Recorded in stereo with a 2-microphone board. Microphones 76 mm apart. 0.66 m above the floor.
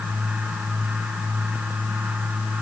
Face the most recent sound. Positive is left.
No sound to turn to.